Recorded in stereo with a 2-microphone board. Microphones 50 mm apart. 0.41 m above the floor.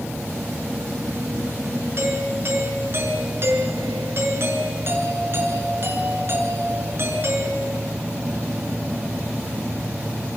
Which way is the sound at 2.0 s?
50° right (ahead or behind).